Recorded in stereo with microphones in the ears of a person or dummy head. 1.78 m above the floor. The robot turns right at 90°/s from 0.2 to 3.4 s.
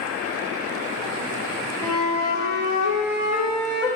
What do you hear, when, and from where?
1.8 s a flute: 5° left, 1.5 m; by 3.9 s 145° left, 1.5 m